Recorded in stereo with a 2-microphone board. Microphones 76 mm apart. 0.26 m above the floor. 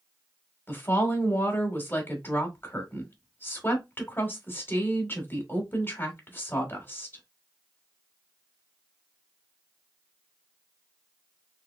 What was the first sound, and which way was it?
A woman speaking, 30° left (ahead or behind).